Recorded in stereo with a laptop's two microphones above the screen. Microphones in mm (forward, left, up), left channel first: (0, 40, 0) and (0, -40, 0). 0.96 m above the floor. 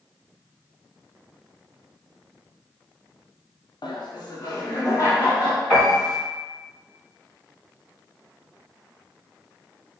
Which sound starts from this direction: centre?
A piano, at 5.7 s.